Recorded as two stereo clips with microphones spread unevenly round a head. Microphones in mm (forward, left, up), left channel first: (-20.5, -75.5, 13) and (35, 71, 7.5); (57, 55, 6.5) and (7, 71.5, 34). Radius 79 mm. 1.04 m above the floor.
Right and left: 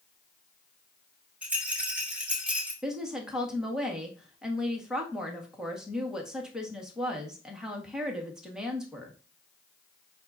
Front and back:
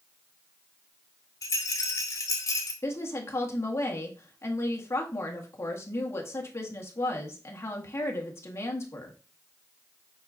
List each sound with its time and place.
1.4 s a rattle: 15° right, 2 m
2.8 s a woman speaking: 15° right, 1.6 m